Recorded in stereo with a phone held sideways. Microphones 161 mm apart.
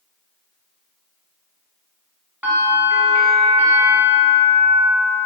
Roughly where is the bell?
Centre.